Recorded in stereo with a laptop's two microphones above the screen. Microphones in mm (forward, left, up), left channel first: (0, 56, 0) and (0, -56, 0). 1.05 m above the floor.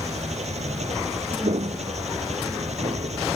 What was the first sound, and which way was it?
An engine running, 80° right.